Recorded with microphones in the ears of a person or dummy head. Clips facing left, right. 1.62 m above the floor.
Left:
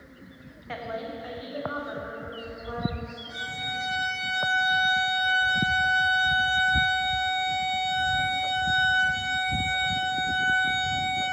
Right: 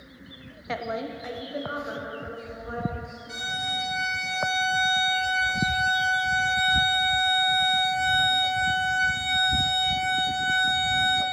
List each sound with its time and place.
0.7 s a woman speaking: 50° right (ahead or behind), 0.5 m; by 3.2 s 25° right (ahead or behind), 2.5 m
3.3 s a violin: 75° right (ahead or behind), 1.7 m